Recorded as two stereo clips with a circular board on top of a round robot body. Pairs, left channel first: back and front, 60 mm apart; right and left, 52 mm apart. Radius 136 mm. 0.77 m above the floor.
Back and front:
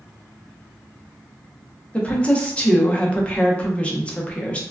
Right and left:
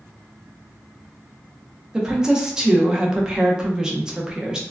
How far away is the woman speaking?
About 0.8 m.